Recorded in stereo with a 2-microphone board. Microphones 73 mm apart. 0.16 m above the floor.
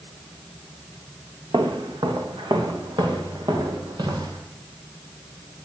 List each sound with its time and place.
1.5 s footsteps: 80° right, 2 m; by 4.4 s 75° right (ahead or behind), 5 m